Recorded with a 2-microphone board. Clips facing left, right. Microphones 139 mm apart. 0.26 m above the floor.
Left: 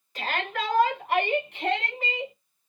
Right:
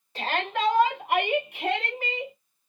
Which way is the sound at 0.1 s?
30° right (ahead or behind).